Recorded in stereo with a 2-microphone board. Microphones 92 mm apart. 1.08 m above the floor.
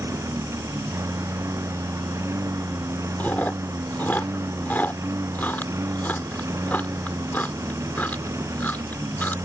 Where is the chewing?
20° left (ahead or behind).